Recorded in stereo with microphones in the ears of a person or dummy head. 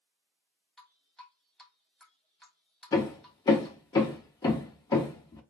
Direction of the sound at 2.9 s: 20° left (ahead or behind).